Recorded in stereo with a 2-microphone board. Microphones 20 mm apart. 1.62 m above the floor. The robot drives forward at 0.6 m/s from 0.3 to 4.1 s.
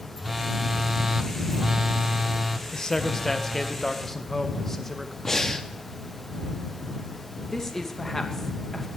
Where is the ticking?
No ticking in this recording.